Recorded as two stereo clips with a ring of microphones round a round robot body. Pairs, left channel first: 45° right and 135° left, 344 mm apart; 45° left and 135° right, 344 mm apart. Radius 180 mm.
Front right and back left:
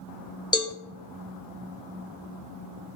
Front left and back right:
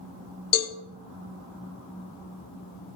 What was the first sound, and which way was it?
A cowbell, 30° left.